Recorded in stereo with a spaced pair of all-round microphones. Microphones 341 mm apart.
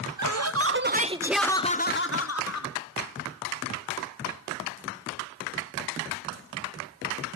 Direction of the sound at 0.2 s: 55° right (ahead or behind).